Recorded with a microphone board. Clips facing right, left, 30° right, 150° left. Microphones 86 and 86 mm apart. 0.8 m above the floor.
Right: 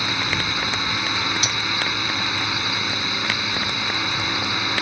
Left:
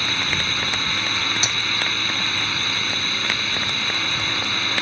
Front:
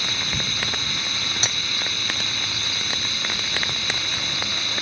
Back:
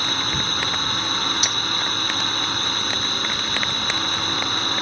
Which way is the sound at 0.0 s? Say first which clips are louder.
Right 1 dB, back 4 dB; 165° right.